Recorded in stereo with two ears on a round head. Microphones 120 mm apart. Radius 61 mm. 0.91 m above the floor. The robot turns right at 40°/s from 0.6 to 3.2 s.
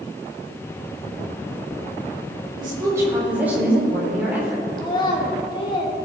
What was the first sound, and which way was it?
A woman speaking, 35° right (ahead or behind).